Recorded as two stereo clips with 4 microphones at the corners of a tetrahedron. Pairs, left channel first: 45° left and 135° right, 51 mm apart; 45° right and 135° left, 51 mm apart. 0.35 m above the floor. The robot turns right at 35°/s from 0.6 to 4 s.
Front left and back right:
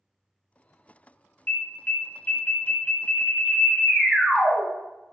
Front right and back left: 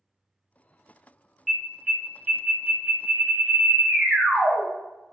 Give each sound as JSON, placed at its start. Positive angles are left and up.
{"t": 1.5, "sound": "an alarm", "azimuth_deg": 50, "distance_m": 0.7}